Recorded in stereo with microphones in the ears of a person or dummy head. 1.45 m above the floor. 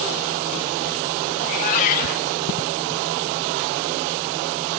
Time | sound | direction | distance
1.4 | a cat meowing | 45° left (ahead or behind) | 1.4 m